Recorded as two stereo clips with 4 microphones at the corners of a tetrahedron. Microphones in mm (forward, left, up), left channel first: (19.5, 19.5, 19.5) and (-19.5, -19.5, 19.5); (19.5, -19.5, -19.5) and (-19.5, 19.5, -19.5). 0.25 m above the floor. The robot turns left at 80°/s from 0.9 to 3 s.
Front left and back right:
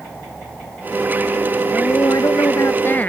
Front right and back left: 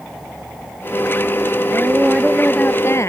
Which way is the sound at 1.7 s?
90° left.